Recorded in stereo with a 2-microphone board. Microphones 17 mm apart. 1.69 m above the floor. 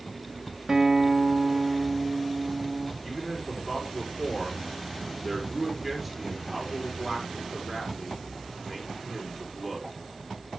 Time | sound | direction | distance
0.7 | a guitar | 35° right (ahead or behind) | 1.6 m
3.0 | a man speaking | centre (ahead or behind) | 4.5 m